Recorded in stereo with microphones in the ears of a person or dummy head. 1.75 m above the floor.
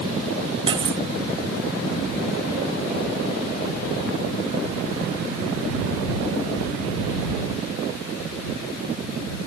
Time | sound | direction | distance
0.7 | cutlery clinking | 25° right (ahead or behind) | ?